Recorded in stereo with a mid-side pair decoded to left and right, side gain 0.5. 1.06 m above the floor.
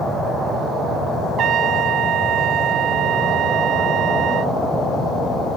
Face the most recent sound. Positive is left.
turn(degrees=-65)